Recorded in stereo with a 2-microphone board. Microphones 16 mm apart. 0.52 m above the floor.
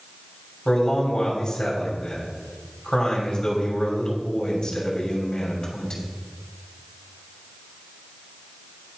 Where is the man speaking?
45° left (ahead or behind), 3 m.